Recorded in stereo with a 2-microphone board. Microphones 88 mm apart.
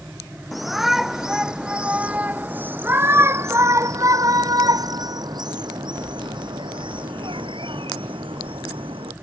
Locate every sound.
0.5 s a shout: centre (ahead or behind); by 9.1 s 80° right